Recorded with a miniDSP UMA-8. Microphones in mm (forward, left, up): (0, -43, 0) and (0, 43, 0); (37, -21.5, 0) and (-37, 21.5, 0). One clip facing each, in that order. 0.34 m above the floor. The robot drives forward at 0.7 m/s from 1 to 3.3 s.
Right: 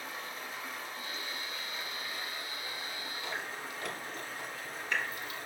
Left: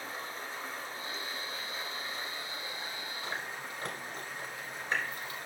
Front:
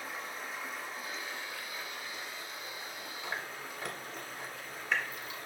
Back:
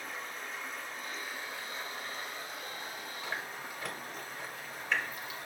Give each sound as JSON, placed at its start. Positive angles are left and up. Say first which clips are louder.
{"t": 0.0, "sound": "running water", "louder": "left 1 dB, front 1 dB", "azimuth_deg": 50, "distance_m": 0.8}
{"t": 3.2, "sound": "chewing", "louder": "even, even", "azimuth_deg": 65, "distance_m": 1.9}